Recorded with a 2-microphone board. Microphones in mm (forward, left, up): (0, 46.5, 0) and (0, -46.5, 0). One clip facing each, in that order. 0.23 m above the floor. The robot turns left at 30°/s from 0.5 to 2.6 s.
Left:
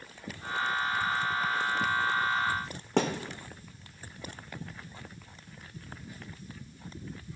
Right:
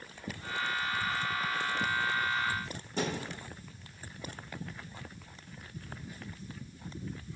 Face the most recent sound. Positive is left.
turn(degrees=75)  # may be behind; listen again after turning